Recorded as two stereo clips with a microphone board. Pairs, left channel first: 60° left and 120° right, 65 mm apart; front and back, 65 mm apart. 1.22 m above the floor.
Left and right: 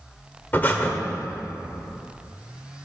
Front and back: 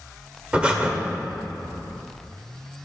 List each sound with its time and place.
0.5 s breathing: 115° left, 1.3 m